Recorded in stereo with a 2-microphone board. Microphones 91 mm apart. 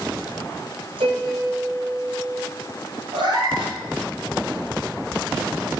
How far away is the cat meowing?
About 4 m.